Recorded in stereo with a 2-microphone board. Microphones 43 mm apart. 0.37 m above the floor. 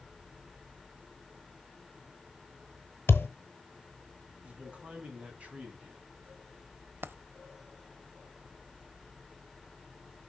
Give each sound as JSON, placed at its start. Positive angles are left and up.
{"t": 3.1, "sound": "a thud", "side_deg": 60, "distance_m": 1.0}
{"t": 4.4, "sound": "a man speaking", "side_deg": -30, "distance_m": 3.0}
{"t": 7.0, "sound": "a dropped coin", "side_deg": -60, "distance_m": 0.5}